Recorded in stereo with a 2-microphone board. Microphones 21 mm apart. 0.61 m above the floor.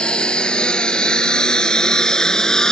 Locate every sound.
0.0 s a lawn mower: 50° left (ahead or behind); by 2.7 s 30° left (ahead or behind)